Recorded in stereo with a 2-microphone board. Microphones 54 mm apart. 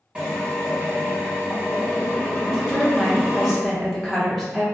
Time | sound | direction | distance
0.1 | a drill | 20° right (ahead or behind) | 1.8 m
2.5 | a woman speaking | centre (ahead or behind) | 1.4 m